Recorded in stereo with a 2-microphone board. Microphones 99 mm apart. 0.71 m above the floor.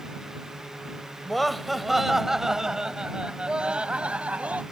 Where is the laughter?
Centre (ahead or behind); by 4.6 s 15° right (ahead or behind).